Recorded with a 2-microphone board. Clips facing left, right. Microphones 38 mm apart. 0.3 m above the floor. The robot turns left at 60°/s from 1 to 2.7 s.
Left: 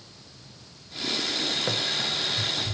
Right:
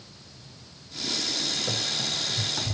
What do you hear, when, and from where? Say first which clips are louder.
1.7 s running footsteps: left 2 dB; 40° left (ahead or behind), 0.9 m; by 2.8 s 60° right (ahead or behind), 0.9 m